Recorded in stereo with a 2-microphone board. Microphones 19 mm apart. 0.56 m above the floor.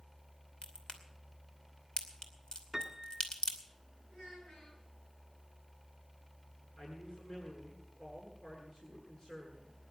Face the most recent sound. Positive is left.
turn(degrees=50)  # may be behind; listen again after turning